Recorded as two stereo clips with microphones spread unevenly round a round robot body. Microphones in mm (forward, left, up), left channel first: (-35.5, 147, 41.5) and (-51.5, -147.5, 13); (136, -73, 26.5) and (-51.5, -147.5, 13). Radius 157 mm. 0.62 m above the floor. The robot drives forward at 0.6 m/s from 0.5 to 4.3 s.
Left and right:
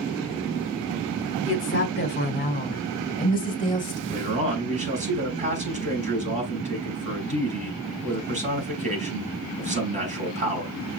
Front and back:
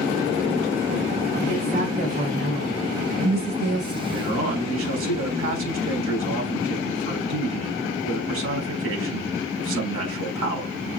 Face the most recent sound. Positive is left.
turn(degrees=-160)